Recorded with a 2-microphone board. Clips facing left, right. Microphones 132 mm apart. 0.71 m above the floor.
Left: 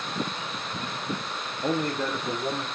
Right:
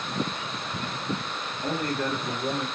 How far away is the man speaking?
About 1.0 m.